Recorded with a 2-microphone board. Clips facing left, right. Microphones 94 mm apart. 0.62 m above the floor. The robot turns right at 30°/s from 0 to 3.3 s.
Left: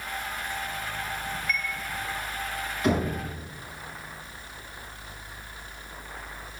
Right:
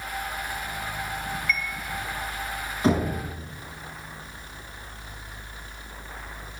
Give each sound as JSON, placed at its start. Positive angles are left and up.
{"t": 1.5, "sound": "a chime", "side_deg": 50, "distance_m": 1.0}
{"t": 2.8, "sound": "knocking", "side_deg": -35, "distance_m": 5.0}